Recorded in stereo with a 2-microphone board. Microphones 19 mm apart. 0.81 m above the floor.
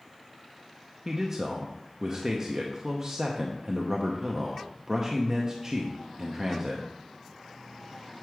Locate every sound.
1.1 s a man speaking: 30° right (ahead or behind), 0.8 m